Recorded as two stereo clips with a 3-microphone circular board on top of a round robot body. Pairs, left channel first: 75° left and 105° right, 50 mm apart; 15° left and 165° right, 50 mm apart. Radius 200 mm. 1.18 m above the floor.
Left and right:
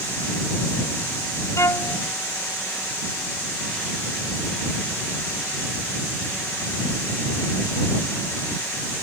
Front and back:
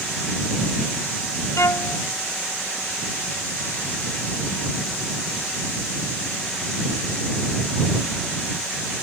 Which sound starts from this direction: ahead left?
A violin, at 1.6 s.